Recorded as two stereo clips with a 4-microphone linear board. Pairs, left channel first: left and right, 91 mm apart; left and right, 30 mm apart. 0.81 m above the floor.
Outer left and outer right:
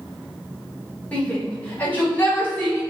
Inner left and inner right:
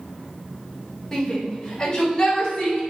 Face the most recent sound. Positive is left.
turn(degrees=25)  # may be behind; listen again after turning